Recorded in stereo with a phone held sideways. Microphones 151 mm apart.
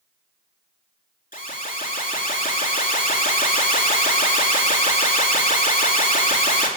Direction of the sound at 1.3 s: 65° left (ahead or behind).